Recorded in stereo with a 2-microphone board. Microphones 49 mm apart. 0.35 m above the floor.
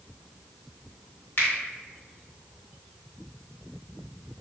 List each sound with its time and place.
1.4 s a finger snap: 45° left (ahead or behind), 1.3 m